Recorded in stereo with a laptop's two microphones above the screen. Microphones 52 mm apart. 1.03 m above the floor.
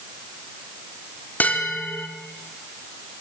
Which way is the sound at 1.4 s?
35° left (ahead or behind).